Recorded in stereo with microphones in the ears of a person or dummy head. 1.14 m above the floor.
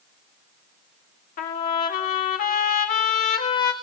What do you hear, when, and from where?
1.4 s a trumpet: 50° left (ahead or behind), 1.7 m